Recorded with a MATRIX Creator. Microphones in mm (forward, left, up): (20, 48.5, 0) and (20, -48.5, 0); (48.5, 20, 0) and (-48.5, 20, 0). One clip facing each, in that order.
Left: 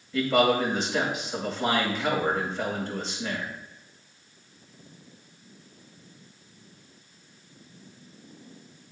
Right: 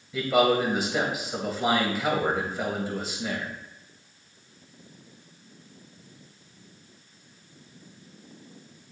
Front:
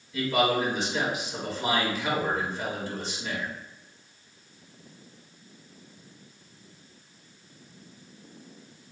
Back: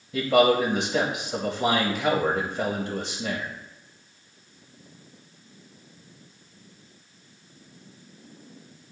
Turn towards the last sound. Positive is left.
turn(degrees=-170)